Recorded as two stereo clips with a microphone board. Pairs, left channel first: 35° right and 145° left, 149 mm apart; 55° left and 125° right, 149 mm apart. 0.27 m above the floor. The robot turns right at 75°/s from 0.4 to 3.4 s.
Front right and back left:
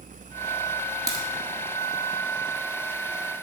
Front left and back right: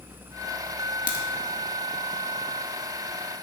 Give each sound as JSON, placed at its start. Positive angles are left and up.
{"t": 1.1, "sound": "a crack", "azimuth_deg": 80, "distance_m": 1.2}